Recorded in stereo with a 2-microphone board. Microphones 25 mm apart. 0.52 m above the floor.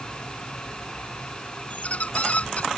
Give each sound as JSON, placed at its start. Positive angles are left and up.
{"t": 1.7, "sound": "a squeak", "side_deg": 55}